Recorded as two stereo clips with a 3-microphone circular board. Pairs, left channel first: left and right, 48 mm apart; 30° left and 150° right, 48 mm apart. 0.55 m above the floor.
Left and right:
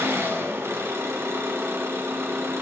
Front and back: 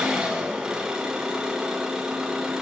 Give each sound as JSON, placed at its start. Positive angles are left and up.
{"t": 0.0, "sound": "an engine running", "azimuth_deg": -75, "distance_m": 5.0}